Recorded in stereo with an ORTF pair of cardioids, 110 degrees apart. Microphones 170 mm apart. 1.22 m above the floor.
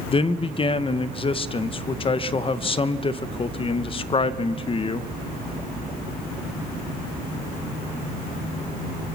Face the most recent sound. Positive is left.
turn(degrees=30)